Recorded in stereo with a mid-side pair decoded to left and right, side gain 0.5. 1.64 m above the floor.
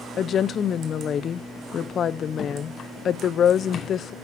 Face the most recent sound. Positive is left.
turn(degrees=55)